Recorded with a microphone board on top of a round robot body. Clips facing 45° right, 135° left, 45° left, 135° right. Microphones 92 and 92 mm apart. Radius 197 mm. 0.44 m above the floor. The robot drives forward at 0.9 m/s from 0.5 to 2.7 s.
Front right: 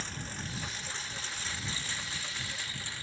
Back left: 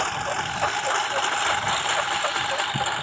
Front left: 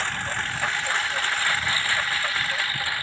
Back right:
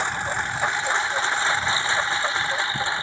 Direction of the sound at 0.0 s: 155° left.